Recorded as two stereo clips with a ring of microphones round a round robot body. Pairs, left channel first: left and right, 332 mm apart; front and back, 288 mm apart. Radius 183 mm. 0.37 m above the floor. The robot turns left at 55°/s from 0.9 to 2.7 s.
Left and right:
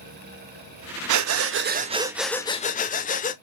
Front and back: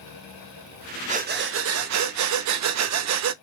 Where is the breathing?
115° right, 0.6 m; by 3.3 s 155° left, 0.6 m.